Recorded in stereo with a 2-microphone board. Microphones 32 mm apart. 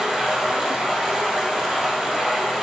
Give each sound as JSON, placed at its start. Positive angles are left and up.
{"t": 0.0, "sound": "running water", "side_deg": -15, "distance_m": 2.5}